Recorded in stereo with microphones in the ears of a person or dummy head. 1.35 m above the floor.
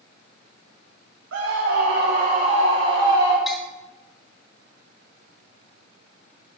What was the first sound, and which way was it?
A scream, 70° right (ahead or behind).